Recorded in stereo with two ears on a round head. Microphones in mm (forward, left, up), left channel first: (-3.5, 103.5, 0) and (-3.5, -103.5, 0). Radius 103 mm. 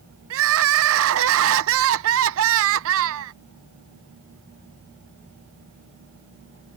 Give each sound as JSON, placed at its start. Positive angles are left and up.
{"t": 0.3, "sound": "crying", "side_deg": -65}